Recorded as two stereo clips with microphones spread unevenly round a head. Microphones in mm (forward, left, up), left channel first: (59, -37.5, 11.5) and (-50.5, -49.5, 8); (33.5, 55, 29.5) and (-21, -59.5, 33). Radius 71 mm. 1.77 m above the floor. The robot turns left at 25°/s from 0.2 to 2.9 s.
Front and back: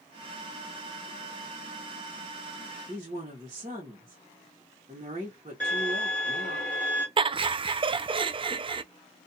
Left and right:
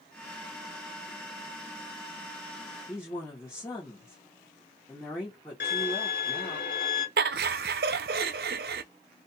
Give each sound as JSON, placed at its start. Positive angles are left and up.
{"t": 2.9, "sound": "a woman speaking", "azimuth_deg": 140, "distance_m": 1.4}
{"t": 5.6, "sound": "a violin", "azimuth_deg": 85, "distance_m": 1.7}
{"t": 7.2, "sound": "laughter", "azimuth_deg": -130, "distance_m": 0.5}